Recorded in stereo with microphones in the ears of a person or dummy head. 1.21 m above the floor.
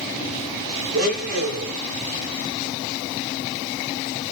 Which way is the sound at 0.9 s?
65° right (ahead or behind).